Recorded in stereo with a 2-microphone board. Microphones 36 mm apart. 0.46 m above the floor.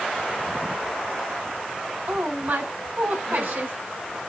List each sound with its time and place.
2.1 s a woman speaking: 75° right (ahead or behind), 2.5 m